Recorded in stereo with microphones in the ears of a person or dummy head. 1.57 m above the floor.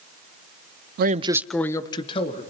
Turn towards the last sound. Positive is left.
turn(degrees=35)  # may be behind; listen again after turning